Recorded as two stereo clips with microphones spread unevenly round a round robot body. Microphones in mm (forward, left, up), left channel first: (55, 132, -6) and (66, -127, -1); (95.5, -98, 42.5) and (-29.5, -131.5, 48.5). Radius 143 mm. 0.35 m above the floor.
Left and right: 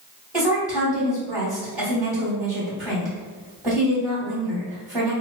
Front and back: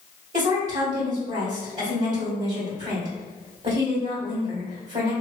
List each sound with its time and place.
0.3 s a woman speaking: 175° right, 2.0 m